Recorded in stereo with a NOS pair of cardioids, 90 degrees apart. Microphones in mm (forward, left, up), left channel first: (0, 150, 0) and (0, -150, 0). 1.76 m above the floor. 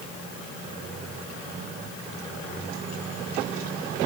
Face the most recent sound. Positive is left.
No sound to turn to.